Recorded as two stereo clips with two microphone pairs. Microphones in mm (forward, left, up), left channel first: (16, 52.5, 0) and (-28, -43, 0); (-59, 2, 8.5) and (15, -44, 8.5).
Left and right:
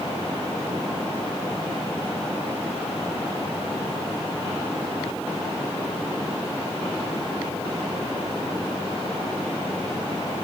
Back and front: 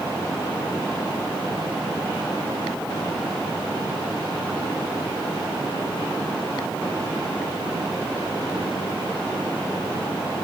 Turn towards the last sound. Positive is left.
No sound to turn to.